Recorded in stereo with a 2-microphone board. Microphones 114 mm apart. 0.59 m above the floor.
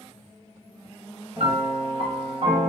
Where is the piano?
65° right (ahead or behind), 1.5 m.